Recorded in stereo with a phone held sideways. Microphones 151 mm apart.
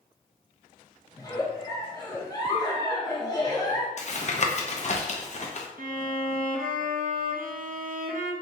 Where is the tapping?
50° left (ahead or behind), 0.6 m.